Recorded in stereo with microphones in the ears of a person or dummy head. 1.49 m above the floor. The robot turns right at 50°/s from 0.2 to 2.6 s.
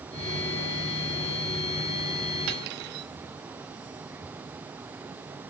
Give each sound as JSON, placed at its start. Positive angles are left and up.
{"t": 2.5, "sound": "cutlery clinking", "side_deg": -60, "distance_m": 1.5}